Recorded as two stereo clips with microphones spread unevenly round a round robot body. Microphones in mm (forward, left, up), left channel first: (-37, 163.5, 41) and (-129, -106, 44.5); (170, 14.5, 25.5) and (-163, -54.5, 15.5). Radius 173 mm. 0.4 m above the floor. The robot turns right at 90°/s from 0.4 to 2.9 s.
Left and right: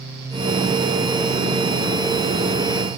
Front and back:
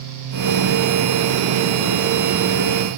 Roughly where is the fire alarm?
I don't hear a fire alarm.